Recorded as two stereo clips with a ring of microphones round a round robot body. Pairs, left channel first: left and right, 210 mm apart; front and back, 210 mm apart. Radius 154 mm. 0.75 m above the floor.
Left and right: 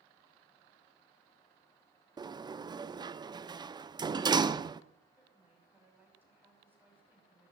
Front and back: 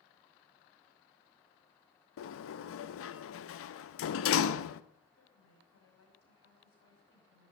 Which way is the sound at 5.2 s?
10° right.